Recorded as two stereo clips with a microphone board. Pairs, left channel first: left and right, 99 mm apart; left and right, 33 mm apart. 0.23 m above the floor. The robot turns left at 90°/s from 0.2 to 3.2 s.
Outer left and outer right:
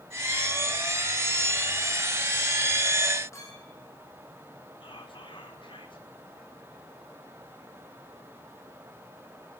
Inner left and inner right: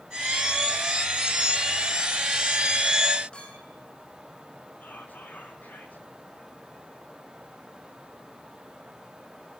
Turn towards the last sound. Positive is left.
turn(degrees=55)  # may be behind; listen again after turning